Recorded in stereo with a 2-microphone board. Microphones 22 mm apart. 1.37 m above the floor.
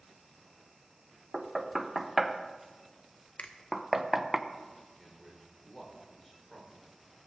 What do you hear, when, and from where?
1.3 s knocking: 15° right (ahead or behind), 0.7 m
3.4 s a finger snap: 80° left, 0.9 m
5.0 s a man speaking: 5° left (ahead or behind), 4 m